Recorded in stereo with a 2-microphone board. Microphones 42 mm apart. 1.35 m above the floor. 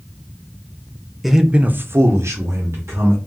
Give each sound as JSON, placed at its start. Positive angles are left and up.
{"t": 1.2, "sound": "a man speaking", "side_deg": -5, "distance_m": 0.6}